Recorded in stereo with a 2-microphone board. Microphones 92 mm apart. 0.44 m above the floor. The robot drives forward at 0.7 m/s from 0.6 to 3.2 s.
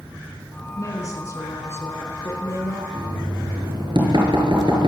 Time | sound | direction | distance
0.8 | a woman speaking | 35° left (ahead or behind) | 4.5 m
2.9 | knocking | 55° right (ahead or behind) | 6 m